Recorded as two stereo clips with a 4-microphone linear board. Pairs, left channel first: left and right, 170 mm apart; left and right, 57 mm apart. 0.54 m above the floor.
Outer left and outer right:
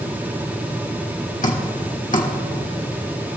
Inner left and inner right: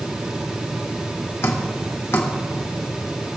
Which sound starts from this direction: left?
Dripping, at 1.4 s.